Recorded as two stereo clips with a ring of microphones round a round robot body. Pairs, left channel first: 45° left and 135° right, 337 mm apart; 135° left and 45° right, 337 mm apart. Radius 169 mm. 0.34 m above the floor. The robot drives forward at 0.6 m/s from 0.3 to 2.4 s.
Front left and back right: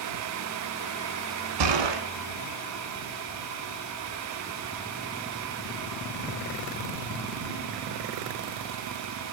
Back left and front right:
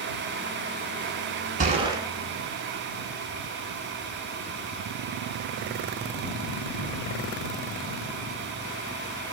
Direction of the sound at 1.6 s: 115° right.